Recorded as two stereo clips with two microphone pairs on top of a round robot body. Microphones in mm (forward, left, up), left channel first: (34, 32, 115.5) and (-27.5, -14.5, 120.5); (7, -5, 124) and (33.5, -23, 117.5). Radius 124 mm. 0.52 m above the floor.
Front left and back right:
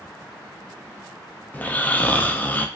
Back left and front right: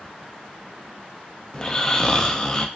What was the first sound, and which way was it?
Snoring, 70° left.